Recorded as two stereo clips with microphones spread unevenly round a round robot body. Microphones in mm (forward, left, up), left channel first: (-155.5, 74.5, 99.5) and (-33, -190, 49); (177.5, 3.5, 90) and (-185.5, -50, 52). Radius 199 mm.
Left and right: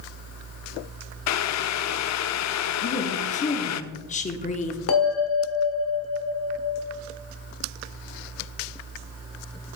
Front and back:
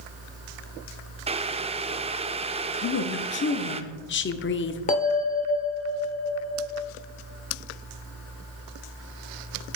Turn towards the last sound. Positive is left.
turn(degrees=75)